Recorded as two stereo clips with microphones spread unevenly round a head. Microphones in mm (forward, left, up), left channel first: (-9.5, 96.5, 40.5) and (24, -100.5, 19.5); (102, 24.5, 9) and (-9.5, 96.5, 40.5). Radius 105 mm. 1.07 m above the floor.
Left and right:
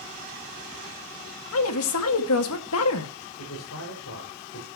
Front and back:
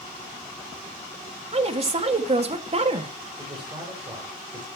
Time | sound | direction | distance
1.5 | a woman speaking | 105° left | 1.9 m
3.4 | a man speaking | 90° left | 6 m